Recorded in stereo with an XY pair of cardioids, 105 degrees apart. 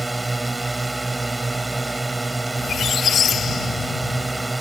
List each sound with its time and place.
0.0 s a drone: 15° right
2.6 s a squeak: 50° left